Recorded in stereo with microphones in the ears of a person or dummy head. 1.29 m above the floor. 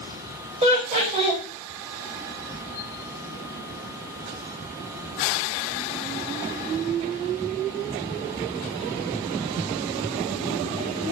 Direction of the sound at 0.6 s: 30° right (ahead or behind).